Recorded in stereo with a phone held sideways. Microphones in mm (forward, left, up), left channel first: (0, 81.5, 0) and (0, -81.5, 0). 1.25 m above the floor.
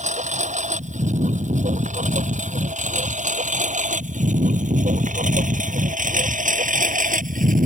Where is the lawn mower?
45° right (ahead or behind); by 7.7 s 55° right (ahead or behind).